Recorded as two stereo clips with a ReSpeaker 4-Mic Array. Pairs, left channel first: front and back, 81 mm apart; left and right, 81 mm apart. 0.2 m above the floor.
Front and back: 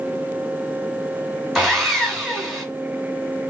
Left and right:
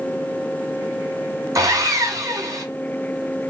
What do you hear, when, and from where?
1.6 s sawing: 95° right, 1.3 m